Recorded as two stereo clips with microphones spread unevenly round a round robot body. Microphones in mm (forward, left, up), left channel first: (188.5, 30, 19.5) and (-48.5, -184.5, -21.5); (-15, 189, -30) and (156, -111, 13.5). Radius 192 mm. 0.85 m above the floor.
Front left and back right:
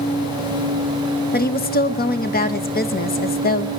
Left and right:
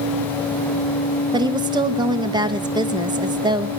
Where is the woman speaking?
15° left, 0.9 m.